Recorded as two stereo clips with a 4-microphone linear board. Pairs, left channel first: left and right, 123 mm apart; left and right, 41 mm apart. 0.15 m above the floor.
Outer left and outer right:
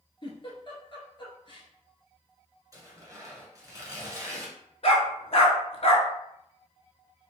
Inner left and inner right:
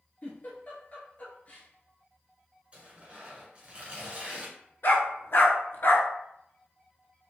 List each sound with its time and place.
0.2 s a giggle: 40° left (ahead or behind), 1.1 m
2.7 s tearing paper: 25° right (ahead or behind), 1.2 m
4.8 s a dog barking: 55° left (ahead or behind), 0.6 m